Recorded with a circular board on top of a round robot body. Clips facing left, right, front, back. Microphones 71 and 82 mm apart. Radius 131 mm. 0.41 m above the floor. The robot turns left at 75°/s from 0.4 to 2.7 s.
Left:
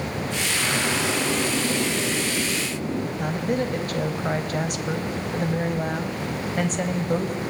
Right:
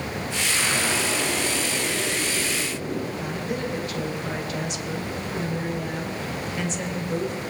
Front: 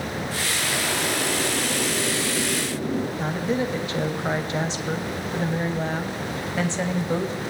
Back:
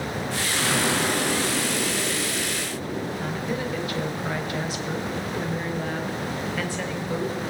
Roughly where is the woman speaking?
Ahead left.